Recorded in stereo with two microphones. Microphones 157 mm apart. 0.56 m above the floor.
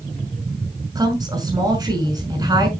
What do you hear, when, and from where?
0.9 s a woman speaking: 25° right (ahead or behind), 5.5 m